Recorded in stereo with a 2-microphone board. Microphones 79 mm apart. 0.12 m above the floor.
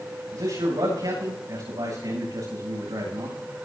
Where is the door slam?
I don't hear a door slam.